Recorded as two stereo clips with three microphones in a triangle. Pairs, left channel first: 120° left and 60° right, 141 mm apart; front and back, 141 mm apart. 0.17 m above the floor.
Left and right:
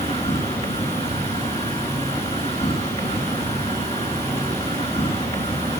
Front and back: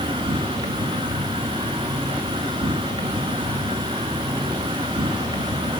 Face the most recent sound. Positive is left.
turn(degrees=145)